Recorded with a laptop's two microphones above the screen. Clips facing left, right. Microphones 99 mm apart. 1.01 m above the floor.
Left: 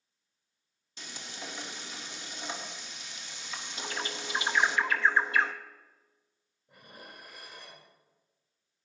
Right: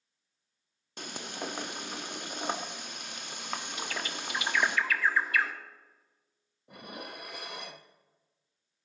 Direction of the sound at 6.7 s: 75° right (ahead or behind).